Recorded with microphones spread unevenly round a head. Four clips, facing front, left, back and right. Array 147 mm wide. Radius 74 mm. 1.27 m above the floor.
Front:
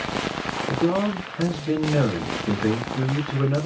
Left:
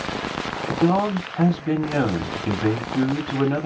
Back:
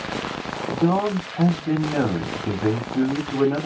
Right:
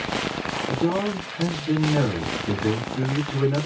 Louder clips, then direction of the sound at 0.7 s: Left 4 dB, back 2 dB; 135° left.